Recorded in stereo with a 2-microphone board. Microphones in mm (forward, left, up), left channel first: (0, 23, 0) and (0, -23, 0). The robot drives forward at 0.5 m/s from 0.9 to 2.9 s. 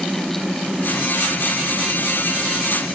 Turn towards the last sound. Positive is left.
No sound to turn to.